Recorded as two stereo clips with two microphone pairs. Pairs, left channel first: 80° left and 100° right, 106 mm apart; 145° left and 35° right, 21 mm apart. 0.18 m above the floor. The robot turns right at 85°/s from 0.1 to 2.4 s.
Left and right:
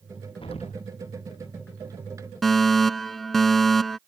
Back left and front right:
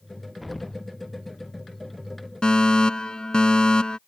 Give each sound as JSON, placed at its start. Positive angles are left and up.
{"t": 0.4, "sound": "an explosion", "azimuth_deg": 45}
{"t": 2.4, "sound": "a fire alarm", "azimuth_deg": 170}